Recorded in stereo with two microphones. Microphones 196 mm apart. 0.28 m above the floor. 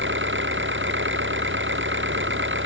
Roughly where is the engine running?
Right.